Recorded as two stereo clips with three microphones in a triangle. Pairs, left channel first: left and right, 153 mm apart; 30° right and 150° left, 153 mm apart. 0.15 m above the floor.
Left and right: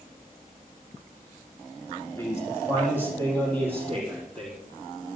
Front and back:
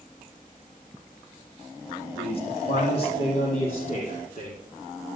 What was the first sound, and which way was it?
A man speaking, 20° left.